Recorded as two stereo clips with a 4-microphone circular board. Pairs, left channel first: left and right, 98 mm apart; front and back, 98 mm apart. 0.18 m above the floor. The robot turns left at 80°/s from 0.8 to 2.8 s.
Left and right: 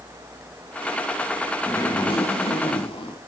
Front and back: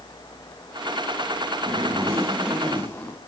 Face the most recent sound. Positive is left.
turn(degrees=70)